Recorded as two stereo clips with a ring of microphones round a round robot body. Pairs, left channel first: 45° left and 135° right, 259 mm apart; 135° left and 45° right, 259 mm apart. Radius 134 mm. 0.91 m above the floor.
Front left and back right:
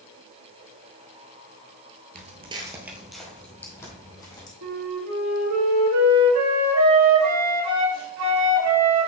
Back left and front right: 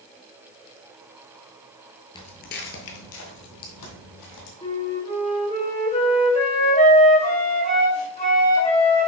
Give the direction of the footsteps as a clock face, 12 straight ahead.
5 o'clock.